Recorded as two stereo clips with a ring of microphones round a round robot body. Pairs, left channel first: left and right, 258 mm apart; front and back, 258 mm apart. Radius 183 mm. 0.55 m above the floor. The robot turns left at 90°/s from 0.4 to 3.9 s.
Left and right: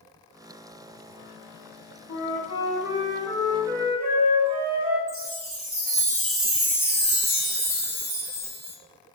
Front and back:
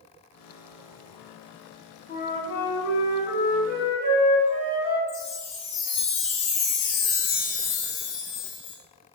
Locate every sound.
2.1 s a flute: 60° left, 3.5 m; by 5.0 s 105° right, 3.5 m
5.1 s a chime: 55° right, 4 m